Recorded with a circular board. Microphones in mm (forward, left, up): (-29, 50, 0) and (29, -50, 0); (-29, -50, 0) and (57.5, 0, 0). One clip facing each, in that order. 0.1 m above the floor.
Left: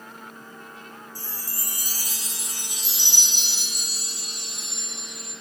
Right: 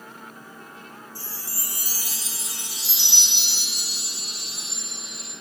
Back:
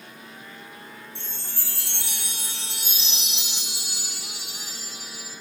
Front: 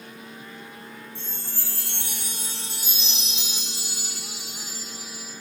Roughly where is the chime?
Behind.